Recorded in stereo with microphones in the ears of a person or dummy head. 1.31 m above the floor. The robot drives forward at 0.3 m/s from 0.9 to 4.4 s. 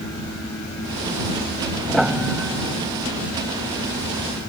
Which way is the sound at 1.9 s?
Centre (ahead or behind).